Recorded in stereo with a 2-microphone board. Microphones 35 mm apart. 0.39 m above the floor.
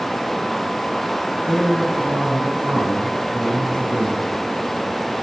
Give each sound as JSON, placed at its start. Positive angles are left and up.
{"t": 1.4, "sound": "a man speaking", "side_deg": -65, "distance_m": 6.0}